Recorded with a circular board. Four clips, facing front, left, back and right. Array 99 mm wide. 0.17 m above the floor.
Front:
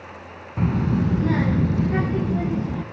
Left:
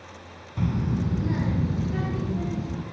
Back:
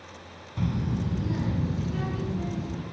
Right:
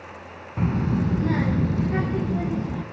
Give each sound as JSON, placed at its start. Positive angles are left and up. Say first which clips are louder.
{"t": 0.6, "sound": "a child speaking", "louder": "right 3 dB, front 8 dB", "azimuth_deg": -30, "distance_m": 1.0}